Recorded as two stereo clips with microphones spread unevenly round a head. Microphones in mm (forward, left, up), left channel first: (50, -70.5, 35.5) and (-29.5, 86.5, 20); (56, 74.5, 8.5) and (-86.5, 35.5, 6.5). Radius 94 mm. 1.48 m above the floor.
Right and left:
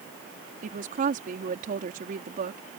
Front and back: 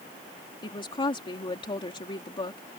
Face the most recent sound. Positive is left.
turn(degrees=70)